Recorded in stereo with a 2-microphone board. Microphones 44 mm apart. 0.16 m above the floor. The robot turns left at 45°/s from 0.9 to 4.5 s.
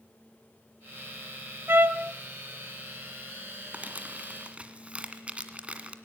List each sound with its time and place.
1.7 s a trumpet: 60° right (ahead or behind), 0.7 m; by 2.1 s 40° right (ahead or behind), 0.7 m
3.7 s crumpling: 35° right (ahead or behind), 1.8 m; by 6.0 s 30° right (ahead or behind), 1.8 m